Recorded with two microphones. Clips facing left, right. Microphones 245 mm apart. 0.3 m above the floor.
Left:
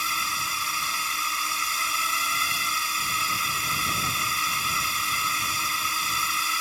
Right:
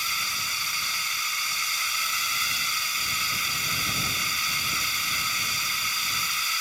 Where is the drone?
60° left (ahead or behind).